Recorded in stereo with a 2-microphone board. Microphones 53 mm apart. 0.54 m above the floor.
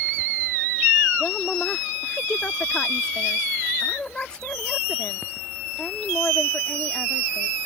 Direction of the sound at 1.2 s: 20° left (ahead or behind).